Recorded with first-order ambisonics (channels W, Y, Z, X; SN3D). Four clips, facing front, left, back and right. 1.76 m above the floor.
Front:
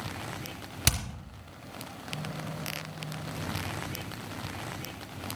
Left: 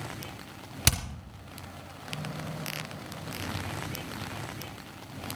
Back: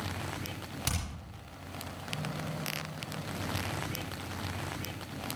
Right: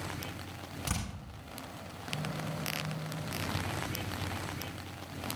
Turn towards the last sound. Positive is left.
turn(degrees=65)